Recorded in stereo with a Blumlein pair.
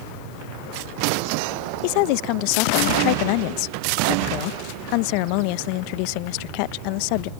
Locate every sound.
1.8 s a woman speaking: 45° left